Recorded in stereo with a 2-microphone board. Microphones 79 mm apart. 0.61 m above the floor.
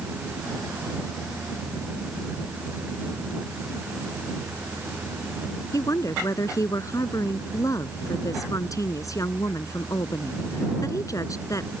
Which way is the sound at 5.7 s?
45° left (ahead or behind).